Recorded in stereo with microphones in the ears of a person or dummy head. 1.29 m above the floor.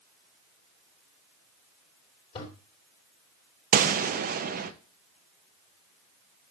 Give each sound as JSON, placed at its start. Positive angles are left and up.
{"t": 2.4, "sound": "a toilet flushing", "side_deg": 30, "distance_m": 2.5}
{"t": 3.7, "sound": "a gunshot", "side_deg": -50, "distance_m": 0.6}